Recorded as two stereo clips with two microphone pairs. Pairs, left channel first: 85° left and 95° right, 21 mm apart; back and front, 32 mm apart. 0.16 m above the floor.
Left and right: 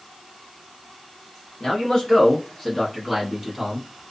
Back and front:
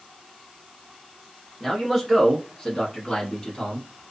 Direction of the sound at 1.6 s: 90° left.